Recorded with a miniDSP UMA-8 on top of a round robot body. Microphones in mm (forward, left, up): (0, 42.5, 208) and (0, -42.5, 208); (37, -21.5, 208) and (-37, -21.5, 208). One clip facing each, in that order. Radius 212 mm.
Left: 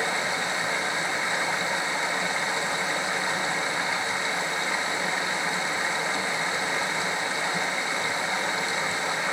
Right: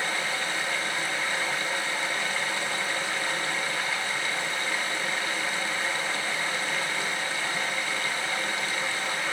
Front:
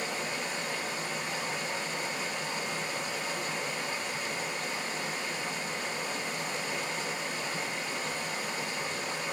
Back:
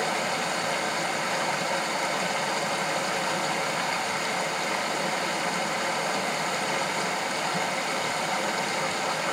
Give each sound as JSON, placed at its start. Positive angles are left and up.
{"t": 0.0, "sound": "running water", "azimuth_deg": 165, "distance_m": 0.8}